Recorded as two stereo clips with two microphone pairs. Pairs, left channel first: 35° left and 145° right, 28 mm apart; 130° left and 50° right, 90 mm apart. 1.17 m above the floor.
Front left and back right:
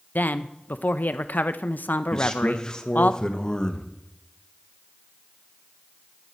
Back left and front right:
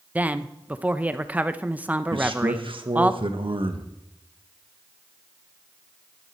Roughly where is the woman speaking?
Ahead left.